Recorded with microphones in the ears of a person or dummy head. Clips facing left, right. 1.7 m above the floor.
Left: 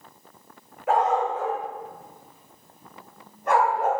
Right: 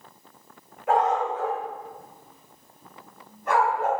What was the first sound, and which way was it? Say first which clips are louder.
A dog barking: left 1 dB; 60° left (ahead or behind).